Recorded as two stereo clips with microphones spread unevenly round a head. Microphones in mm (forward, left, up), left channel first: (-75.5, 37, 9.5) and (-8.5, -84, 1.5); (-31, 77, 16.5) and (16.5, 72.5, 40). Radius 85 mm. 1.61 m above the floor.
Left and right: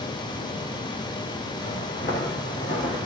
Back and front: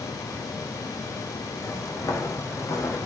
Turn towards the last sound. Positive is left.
turn(degrees=150)